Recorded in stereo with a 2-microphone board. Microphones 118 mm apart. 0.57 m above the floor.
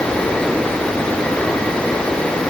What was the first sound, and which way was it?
Only background noise.